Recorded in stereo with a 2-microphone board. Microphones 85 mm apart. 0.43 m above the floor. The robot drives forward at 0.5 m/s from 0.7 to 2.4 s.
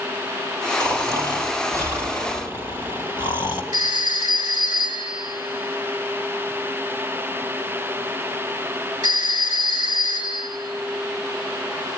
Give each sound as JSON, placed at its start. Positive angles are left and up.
{"t": 0.8, "sound": "snoring", "side_deg": -35, "distance_m": 1.8}
{"t": 3.7, "sound": "a phone ringing", "side_deg": -45, "distance_m": 5.5}